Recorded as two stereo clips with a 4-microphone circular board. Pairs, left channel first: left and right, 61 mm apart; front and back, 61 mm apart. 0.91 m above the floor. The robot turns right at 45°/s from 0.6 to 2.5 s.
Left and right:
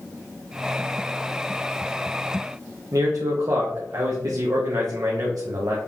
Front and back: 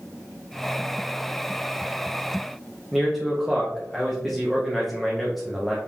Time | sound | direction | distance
2.9 | a man speaking | 90° right | 0.7 m